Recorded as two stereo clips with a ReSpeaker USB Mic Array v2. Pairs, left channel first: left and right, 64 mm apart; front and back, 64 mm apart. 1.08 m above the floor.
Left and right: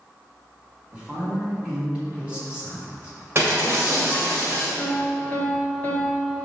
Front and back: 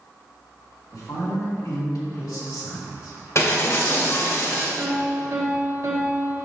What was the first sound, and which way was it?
A woman speaking, 15° right.